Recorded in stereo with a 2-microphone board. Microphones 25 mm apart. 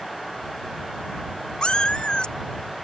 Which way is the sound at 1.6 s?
45° left (ahead or behind).